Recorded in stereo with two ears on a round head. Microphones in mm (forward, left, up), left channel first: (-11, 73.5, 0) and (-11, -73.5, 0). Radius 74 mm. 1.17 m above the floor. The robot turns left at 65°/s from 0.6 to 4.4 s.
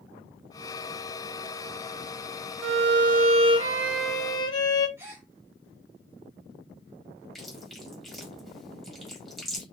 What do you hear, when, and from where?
2.6 s a violin: 90° right, 0.6 m; by 4.9 s 155° left, 0.6 m
5.0 s a gasp: 15° right (ahead or behind), 0.9 m
7.3 s chewing: centre (ahead or behind), 1.0 m